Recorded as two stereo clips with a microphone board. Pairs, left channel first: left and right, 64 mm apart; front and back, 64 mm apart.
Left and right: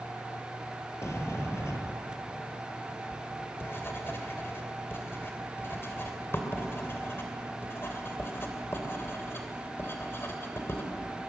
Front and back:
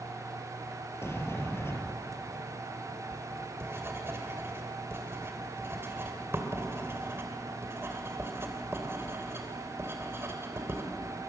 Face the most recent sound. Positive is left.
turn(degrees=135)